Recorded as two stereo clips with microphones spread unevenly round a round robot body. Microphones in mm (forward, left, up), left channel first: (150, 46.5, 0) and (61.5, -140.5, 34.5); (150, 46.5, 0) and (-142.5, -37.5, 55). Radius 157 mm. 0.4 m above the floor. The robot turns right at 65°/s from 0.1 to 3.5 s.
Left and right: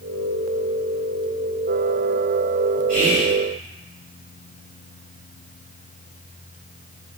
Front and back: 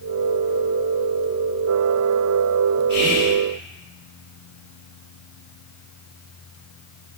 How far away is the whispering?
About 1.5 m.